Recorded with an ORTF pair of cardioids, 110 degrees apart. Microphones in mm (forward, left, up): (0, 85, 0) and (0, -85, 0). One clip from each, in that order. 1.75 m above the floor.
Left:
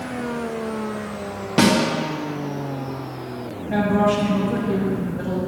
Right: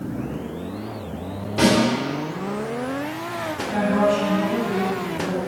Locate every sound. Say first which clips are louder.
1.6 s a snare drum: left 1 dB; 50° left, 1.3 m
3.7 s a woman speaking: left 1 dB; 40° left, 1.5 m